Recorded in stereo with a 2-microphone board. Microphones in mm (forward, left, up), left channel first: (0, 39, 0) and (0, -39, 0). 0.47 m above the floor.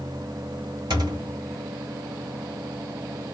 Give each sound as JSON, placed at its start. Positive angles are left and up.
{"t": 0.9, "sound": "a thud", "side_deg": -60, "distance_m": 1.1}